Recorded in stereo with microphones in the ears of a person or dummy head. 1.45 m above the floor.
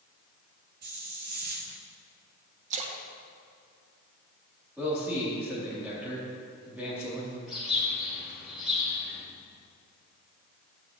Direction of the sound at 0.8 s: 50° right (ahead or behind).